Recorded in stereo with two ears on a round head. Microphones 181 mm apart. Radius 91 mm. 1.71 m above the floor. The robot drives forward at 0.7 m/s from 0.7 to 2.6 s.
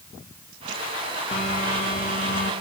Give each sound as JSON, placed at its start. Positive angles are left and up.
{"t": 1.3, "sound": "a phone buzzing", "side_deg": 30, "distance_m": 2.0}